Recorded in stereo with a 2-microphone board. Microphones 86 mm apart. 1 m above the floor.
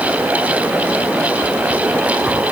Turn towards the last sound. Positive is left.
No sound to turn to.